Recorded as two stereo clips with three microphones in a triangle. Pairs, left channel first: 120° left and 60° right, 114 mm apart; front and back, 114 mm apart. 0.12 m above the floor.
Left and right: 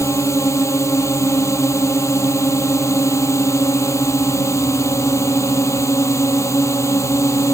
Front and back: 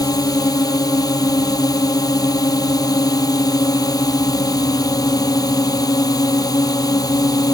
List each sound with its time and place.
0.0 s a drone: 55° left